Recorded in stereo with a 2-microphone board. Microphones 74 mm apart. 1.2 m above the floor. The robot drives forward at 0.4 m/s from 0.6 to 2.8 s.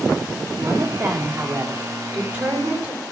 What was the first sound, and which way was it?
A woman speaking, 25° right (ahead or behind).